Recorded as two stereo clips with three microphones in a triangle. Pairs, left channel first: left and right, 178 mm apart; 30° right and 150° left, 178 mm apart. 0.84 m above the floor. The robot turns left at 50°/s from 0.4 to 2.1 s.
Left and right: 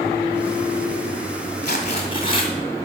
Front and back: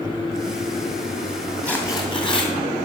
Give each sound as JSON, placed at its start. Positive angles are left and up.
{"t": 1.6, "sound": "tearing paper", "azimuth_deg": 55, "distance_m": 2.0}